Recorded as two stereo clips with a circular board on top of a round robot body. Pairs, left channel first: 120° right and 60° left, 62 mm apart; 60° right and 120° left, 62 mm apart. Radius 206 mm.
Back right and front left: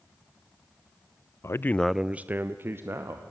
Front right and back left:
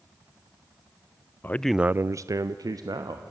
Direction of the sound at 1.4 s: 105° right.